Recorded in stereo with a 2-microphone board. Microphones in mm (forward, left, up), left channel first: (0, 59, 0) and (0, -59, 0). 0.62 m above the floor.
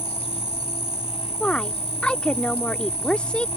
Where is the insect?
60° left (ahead or behind).